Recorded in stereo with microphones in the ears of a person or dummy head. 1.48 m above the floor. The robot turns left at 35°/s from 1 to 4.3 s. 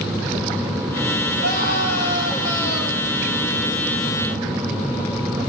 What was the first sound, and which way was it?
A scream, 125° right.